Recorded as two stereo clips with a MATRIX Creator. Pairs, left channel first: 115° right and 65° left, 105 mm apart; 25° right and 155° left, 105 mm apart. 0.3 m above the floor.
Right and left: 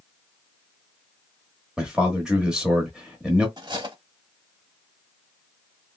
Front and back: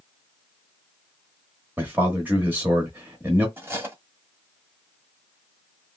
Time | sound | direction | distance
1.8 | a man speaking | 135° left | 1.0 m
3.6 | cutlery clinking | 95° left | 1.1 m